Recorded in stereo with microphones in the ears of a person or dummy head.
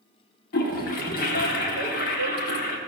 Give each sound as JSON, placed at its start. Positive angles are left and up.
{"t": 0.5, "sound": "a toilet flushing", "side_deg": 50, "distance_m": 1.4}